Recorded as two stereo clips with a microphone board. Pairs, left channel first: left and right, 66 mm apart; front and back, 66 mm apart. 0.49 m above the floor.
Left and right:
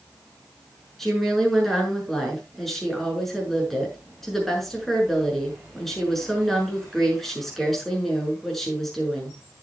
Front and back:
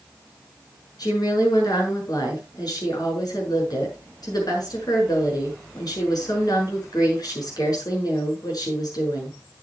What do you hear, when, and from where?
1.0 s a woman speaking: 5° left, 6.5 m